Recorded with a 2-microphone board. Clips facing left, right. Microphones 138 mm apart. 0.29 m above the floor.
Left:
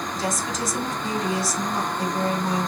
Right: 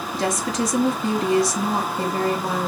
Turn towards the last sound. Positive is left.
turn(degrees=-70)  # may be behind; listen again after turning